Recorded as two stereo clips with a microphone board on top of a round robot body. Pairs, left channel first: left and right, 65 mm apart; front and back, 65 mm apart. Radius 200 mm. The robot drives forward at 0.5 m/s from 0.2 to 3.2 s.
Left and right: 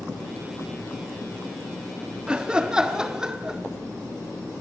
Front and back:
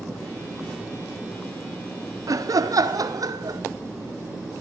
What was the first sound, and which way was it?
Laughter, 165° right.